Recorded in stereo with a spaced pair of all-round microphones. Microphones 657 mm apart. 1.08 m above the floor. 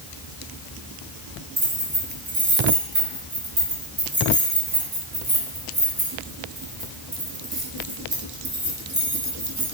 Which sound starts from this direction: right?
Keys jangling, at 1.6 s.